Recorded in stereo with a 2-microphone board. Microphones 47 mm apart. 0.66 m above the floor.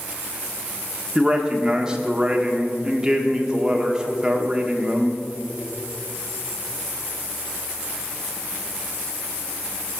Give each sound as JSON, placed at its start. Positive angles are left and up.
{"t": 1.1, "sound": "a man speaking", "side_deg": -20, "distance_m": 1.2}